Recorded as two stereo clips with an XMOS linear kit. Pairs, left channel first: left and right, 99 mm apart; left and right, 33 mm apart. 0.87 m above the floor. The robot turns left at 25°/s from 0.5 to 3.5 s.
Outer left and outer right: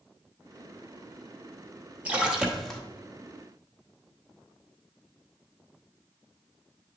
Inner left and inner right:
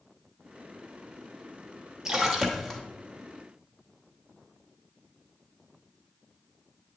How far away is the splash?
About 1.0 m.